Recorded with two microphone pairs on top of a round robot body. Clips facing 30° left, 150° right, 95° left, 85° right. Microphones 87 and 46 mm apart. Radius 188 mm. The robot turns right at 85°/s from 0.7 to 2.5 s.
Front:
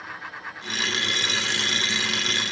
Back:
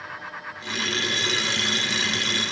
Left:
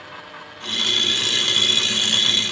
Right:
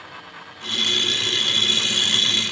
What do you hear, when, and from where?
Only background noise.